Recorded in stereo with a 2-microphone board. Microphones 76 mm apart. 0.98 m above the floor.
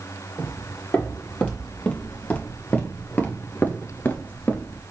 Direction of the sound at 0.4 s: 10° left (ahead or behind).